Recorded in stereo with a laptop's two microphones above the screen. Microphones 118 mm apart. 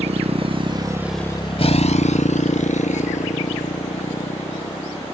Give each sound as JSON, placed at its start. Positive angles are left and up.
{"t": 0.0, "sound": "a motorcycle", "side_deg": -60}